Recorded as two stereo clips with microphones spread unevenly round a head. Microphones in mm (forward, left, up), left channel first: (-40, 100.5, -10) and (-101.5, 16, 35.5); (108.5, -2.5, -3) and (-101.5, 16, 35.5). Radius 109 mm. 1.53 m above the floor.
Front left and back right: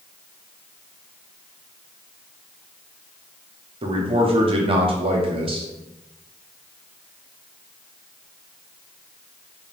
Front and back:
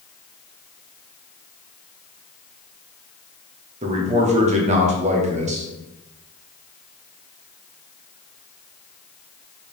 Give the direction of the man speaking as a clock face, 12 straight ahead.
4 o'clock.